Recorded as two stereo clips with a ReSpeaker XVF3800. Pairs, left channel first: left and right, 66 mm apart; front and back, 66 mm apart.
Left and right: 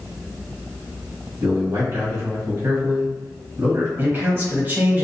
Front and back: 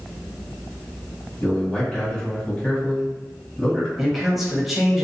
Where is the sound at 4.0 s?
90° right, 1.0 m.